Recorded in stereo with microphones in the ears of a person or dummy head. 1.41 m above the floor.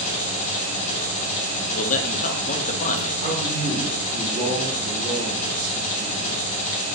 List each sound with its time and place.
0.0 s an engine running: 40° left (ahead or behind), 1.2 m
1.7 s a man speaking: 45° left (ahead or behind), 0.6 m
3.2 s a man speaking: 45° right (ahead or behind), 1.9 m